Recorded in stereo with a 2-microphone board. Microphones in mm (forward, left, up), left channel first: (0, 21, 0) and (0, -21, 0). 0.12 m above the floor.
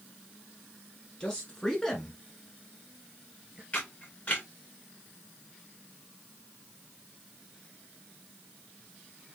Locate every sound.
1.2 s a man speaking: 20° left (ahead or behind), 2 m; by 3.6 s 20° right (ahead or behind), 2.5 m
3.7 s a camera shutter: 30° left (ahead or behind), 2 m